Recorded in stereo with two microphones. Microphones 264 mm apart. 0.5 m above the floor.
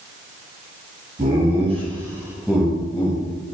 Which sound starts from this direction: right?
Laughter, at 1.2 s.